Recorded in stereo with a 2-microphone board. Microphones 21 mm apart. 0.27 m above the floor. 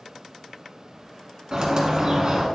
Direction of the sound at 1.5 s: 40° right (ahead or behind).